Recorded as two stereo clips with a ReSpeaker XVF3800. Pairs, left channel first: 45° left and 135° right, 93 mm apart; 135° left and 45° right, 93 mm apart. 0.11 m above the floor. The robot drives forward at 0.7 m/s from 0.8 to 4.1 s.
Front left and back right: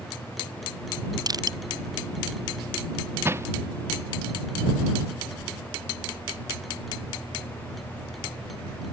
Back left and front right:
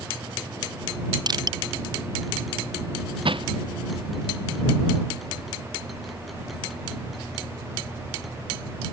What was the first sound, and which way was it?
Crushing, 90° right.